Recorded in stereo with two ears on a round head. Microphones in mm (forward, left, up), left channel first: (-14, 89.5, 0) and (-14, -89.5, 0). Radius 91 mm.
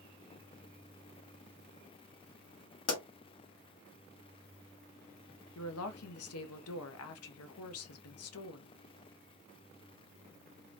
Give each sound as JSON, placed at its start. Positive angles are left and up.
{"t": 2.9, "sound": "a pop", "side_deg": 70, "distance_m": 1.7}
{"t": 5.5, "sound": "a woman speaking", "side_deg": 75, "distance_m": 0.8}